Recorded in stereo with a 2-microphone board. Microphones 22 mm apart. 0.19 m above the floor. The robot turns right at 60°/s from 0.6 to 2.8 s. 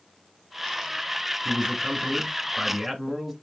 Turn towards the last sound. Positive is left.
turn(degrees=-5)